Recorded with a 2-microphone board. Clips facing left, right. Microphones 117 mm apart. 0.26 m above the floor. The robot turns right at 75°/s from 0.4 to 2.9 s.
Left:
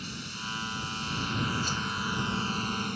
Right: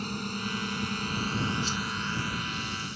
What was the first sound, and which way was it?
A drone, 115° right.